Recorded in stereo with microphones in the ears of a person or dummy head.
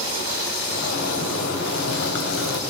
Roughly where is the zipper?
Left.